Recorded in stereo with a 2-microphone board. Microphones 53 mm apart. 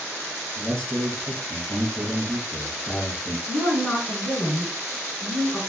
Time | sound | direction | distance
0.6 | a man speaking | 20° left (ahead or behind) | 2.5 m
3.5 | a woman speaking | 35° left (ahead or behind) | 2.5 m